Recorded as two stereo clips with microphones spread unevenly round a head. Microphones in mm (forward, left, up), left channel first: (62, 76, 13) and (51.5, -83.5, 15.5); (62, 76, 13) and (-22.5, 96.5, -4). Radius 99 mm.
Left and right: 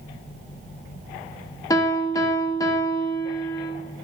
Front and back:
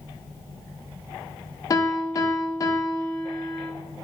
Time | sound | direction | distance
1.7 | a piano | 20° left | 0.6 m